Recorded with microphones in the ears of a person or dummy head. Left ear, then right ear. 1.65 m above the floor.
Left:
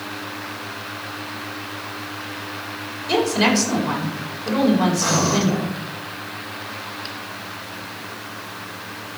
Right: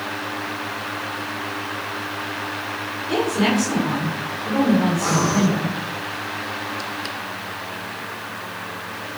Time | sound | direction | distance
3.1 | a woman speaking | 45° left (ahead or behind) | 5 m
5.0 | breathing | 20° left (ahead or behind) | 7.5 m